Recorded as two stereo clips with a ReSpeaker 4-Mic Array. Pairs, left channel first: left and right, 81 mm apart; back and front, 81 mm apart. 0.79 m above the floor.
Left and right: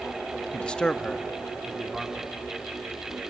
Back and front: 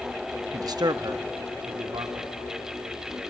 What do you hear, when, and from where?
0.5 s a man speaking: 20° left, 0.7 m; by 2.3 s straight ahead, 2.0 m